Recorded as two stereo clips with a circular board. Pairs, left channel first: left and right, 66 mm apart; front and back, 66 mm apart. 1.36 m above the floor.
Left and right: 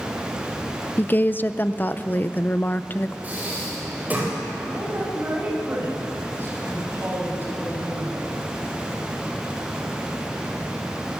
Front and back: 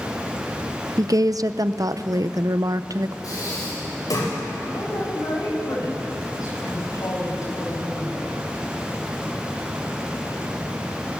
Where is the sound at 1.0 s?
150° left, 0.7 m.